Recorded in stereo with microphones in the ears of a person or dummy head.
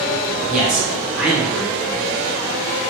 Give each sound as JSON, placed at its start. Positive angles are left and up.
{"t": 0.5, "sound": "a man speaking", "side_deg": 0, "distance_m": 0.7}